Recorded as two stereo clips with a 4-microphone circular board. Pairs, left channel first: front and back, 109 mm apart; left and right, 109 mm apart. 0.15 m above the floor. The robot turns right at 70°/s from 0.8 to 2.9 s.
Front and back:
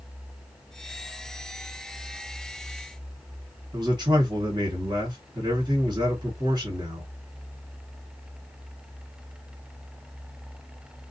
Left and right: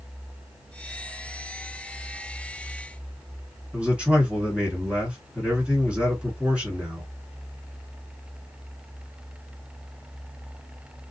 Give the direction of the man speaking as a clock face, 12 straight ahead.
5 o'clock.